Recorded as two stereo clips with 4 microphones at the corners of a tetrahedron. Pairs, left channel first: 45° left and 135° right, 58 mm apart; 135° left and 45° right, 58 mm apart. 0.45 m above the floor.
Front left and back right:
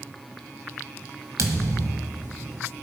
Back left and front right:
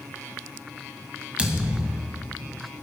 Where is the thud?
115° right, 1.4 m.